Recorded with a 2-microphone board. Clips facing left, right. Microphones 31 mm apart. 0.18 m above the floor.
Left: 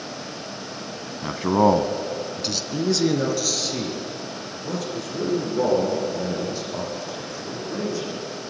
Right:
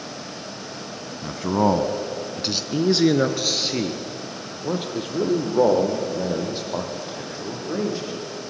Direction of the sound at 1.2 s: 30° left (ahead or behind).